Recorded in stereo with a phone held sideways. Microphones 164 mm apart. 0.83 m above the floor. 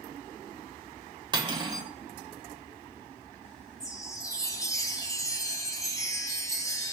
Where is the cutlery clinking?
30° right (ahead or behind), 0.9 m.